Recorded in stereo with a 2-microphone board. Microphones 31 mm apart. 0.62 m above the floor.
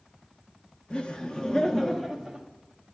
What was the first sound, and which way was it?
Laughter, 30° left (ahead or behind).